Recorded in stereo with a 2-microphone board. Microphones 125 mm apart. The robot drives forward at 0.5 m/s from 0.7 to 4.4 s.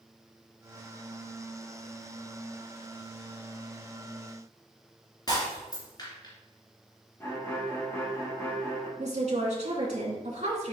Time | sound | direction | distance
5.3 | breaking glass | 35° left (ahead or behind) | 3 m
7.2 | a violin | 20° left (ahead or behind) | 1.8 m
9.0 | a woman speaking | 60° right (ahead or behind) | 2.5 m